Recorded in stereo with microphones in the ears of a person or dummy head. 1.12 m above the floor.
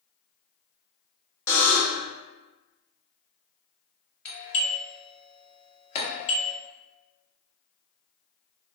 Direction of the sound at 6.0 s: 40° left (ahead or behind).